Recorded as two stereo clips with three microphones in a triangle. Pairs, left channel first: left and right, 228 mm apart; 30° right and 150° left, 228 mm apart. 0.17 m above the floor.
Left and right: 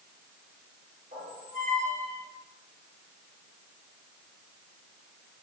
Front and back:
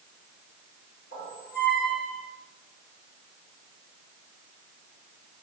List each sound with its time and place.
1.1 s a squeak: 45° right, 2 m